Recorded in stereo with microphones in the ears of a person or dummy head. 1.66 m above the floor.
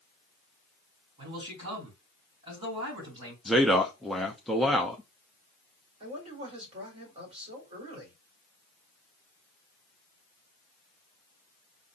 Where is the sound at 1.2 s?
30° right (ahead or behind), 3 m.